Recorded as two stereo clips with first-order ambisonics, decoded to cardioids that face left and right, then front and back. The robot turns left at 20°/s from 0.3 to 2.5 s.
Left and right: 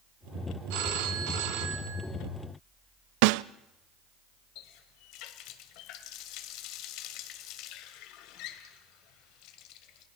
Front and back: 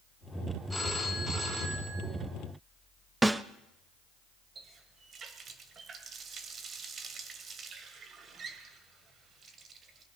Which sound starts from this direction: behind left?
A running tap, at 4.5 s.